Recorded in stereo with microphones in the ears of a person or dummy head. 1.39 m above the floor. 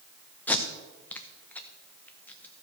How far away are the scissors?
No scissors in this recording.